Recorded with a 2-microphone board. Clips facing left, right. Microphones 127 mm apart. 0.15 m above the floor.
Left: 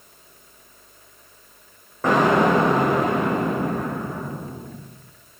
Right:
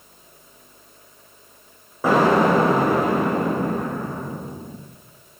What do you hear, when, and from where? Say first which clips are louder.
2.0 s an explosion: right 1 dB; 10° right (ahead or behind), 8.5 m